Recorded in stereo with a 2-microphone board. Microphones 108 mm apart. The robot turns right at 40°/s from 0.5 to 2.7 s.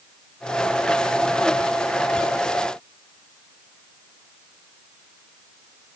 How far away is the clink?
No clink in this recording.